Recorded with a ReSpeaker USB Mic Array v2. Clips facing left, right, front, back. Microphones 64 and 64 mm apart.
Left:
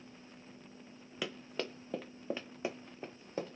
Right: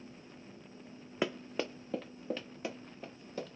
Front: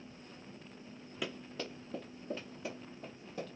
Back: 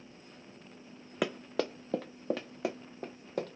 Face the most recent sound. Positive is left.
turn(degrees=150)